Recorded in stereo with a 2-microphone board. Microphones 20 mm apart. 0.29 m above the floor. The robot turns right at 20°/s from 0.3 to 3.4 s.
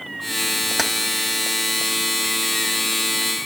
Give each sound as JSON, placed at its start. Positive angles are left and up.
{"t": 0.8, "sound": "keys jangling", "side_deg": 0, "distance_m": 0.9}